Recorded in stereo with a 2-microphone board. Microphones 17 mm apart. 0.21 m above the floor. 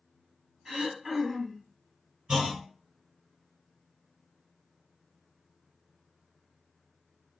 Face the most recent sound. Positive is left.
turn(degrees=-45)  # may be behind; listen again after turning